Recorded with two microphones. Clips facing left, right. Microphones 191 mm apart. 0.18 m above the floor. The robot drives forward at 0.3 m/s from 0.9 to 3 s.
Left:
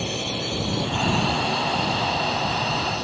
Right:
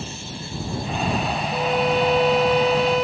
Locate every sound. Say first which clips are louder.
0.0 s a drone: left 6 dB; 70° left (ahead or behind); by 3.0 s 75° left (ahead or behind)
1.5 s a violin: right 5 dB; 80° right